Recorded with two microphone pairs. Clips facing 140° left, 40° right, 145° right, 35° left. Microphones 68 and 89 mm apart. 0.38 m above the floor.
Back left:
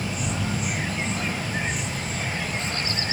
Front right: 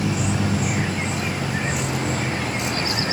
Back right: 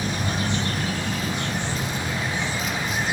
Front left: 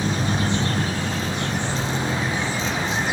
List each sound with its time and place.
0.0 s a vehicle: 25° right